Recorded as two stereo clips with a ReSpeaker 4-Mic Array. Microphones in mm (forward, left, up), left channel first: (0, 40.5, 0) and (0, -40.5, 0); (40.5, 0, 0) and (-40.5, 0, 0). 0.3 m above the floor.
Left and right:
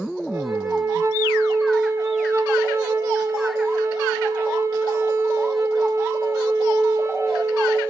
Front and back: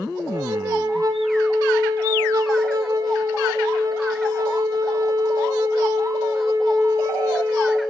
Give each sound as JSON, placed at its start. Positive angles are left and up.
{"t": 0.3, "sound": "a flute", "azimuth_deg": -140, "distance_m": 1.5}